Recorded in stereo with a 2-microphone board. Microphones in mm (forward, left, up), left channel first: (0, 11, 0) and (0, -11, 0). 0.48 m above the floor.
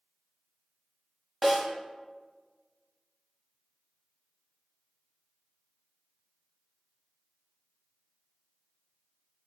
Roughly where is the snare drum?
Centre.